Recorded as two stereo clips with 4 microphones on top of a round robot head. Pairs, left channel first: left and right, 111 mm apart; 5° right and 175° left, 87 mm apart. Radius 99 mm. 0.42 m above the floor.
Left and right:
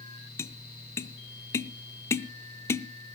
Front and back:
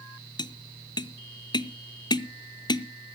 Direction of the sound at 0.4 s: 25° left.